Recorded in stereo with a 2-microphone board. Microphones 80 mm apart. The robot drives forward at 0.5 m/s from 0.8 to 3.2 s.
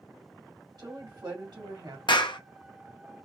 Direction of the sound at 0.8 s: 75° right (ahead or behind).